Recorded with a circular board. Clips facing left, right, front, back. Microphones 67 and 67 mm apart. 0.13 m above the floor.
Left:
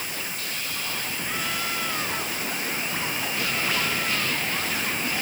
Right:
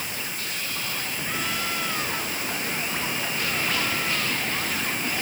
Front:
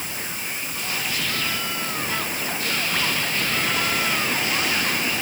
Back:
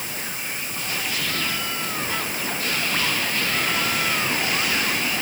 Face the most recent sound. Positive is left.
No sound to turn to.